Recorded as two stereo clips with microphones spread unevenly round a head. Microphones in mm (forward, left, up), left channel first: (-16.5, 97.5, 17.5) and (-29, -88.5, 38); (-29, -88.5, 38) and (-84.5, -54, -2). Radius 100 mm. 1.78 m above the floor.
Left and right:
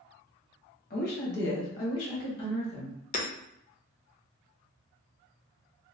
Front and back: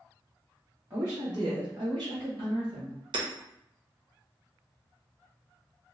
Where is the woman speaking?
45° left, 0.8 m; by 3.0 s 110° left, 1.4 m.